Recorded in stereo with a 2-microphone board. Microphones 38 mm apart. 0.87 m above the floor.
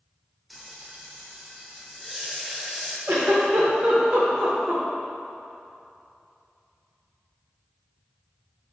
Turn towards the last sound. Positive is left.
turn(degrees=-50)  # may be behind; listen again after turning